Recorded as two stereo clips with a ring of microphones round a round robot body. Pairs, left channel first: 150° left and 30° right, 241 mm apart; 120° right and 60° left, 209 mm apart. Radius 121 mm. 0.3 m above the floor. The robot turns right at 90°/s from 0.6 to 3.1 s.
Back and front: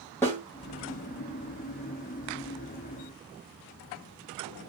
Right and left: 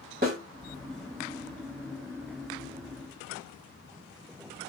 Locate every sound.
0.2 s a snare drum: 75° left, 1.8 m